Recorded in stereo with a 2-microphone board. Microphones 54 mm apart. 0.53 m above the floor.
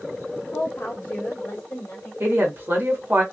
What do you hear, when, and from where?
0.5 s a woman speaking: 30° left (ahead or behind), 1.0 m; by 2.1 s 35° left (ahead or behind), 1.7 m
2.2 s a woman speaking: 40° right (ahead or behind), 1.1 m